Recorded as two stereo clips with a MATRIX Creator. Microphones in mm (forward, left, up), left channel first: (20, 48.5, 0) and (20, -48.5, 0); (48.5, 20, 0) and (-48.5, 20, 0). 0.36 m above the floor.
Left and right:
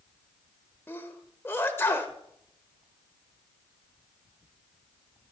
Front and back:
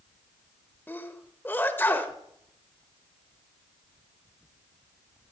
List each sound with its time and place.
0.9 s a sneeze: 50° left, 1.1 m